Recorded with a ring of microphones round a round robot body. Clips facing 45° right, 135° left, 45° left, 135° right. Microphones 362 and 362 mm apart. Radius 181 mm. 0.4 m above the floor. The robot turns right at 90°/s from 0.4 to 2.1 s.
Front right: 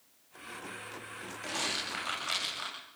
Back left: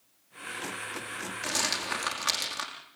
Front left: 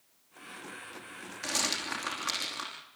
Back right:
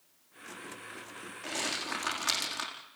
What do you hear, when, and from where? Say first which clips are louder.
1.4 s a rattle: back left 3 dB, front left 1 dB; 80° left, 5.5 m; by 2.7 s 140° left, 5.5 m